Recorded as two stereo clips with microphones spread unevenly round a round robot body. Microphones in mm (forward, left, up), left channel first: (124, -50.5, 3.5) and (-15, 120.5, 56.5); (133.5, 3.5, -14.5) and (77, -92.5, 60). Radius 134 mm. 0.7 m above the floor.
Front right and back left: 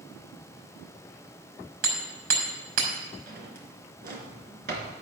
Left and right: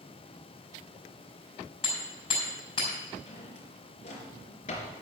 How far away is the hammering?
About 5 m.